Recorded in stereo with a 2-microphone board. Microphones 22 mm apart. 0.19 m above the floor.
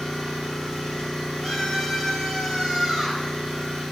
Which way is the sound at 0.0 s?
70° left (ahead or behind).